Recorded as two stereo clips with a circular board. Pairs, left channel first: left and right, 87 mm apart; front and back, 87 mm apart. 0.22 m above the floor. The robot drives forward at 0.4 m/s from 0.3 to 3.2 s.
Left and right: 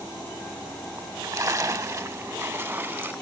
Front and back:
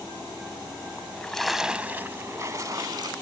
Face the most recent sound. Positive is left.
turn(degrees=-155)